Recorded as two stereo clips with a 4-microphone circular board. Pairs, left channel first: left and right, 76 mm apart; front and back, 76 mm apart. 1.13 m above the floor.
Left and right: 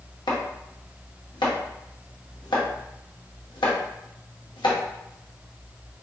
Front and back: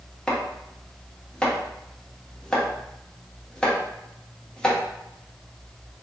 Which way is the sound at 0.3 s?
80° left.